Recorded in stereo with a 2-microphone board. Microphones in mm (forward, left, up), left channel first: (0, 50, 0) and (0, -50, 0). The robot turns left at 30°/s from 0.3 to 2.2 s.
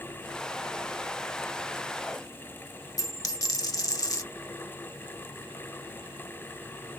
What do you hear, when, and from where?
3.0 s a dropped coin: 35° left (ahead or behind), 0.6 m